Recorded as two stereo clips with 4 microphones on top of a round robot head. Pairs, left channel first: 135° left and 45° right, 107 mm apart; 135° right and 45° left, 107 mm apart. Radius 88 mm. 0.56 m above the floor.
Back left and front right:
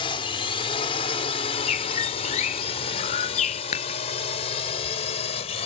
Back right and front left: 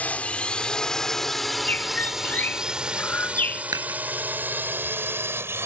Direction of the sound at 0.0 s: 155° left.